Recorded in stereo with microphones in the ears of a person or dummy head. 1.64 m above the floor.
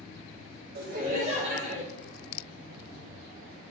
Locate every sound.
0.8 s laughter: 55° right (ahead or behind), 1.0 m; by 1.8 s 40° right (ahead or behind), 1.4 m